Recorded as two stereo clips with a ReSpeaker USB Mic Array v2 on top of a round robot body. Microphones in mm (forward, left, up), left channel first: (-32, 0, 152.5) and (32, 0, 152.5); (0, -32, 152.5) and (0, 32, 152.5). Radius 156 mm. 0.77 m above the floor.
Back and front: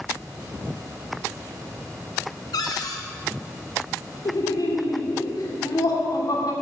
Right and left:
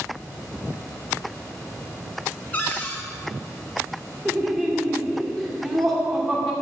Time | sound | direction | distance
2.5 | a cupboard door | 155° right | 0.5 m
4.2 | laughter | straight behind | 2.5 m